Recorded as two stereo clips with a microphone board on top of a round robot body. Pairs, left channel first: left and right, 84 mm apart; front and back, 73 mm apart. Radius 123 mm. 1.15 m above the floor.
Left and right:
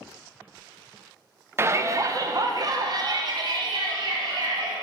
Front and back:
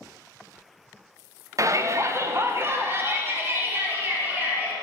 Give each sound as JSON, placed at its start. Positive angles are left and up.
{"t": 1.6, "sound": "a shout", "azimuth_deg": -145, "distance_m": 0.8}